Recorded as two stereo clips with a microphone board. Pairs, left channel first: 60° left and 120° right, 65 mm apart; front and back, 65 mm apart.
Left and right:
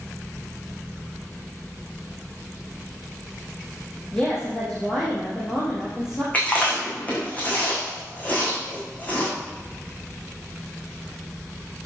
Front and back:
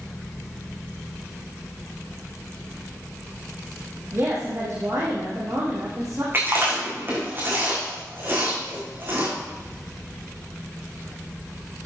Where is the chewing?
125° left, 5 m.